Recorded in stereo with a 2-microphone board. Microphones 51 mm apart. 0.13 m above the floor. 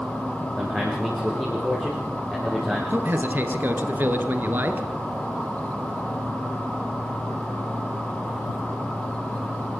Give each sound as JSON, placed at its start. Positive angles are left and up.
{"t": 0.6, "sound": "a man speaking", "side_deg": 5, "distance_m": 5.0}
{"t": 2.9, "sound": "a man speaking", "side_deg": -40, "distance_m": 2.0}